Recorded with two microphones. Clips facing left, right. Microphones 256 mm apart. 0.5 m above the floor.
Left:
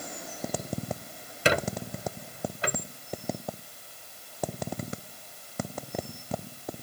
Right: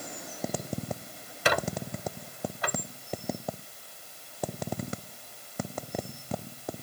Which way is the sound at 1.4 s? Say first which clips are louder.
Left 2 dB; 30° left (ahead or behind).